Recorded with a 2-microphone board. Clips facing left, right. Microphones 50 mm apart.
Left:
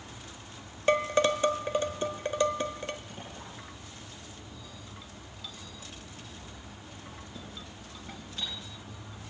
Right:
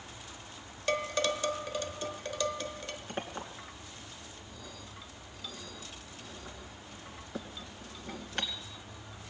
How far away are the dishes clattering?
About 0.9 m.